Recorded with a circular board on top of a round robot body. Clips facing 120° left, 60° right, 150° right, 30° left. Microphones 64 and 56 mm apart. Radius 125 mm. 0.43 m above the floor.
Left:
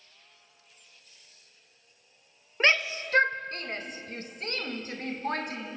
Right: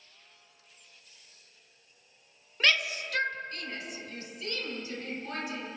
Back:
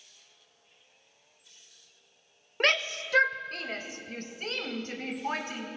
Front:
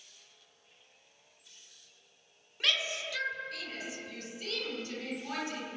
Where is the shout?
Straight behind, 1.8 m; by 5.7 s 160° left, 4.5 m.